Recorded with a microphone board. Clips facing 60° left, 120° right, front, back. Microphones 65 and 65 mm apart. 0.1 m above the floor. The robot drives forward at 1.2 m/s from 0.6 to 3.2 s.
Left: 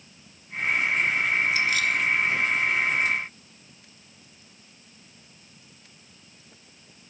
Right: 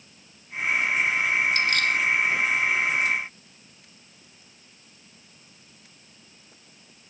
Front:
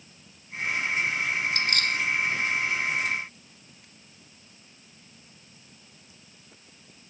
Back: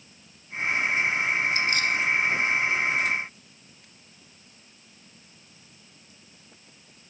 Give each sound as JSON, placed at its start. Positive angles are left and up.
{"t": 1.5, "sound": "keys jangling", "azimuth_deg": -25}